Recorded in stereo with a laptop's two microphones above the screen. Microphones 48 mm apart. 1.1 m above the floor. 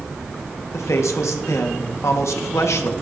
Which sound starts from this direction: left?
A man speaking, at 0.7 s.